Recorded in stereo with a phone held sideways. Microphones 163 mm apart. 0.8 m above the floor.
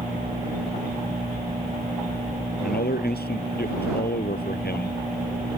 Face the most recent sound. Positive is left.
turn(degrees=70)  # may be behind; listen again after turning